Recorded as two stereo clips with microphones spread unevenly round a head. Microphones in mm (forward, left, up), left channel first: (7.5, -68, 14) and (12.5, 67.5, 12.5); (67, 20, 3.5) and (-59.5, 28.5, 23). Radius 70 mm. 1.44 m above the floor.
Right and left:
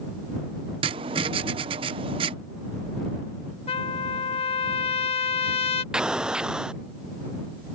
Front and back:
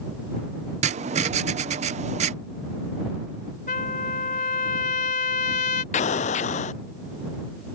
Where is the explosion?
5° left.